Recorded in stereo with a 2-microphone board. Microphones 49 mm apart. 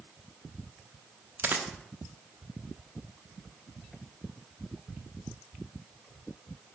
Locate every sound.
1.4 s a dropped coin: 45° right (ahead or behind), 0.6 m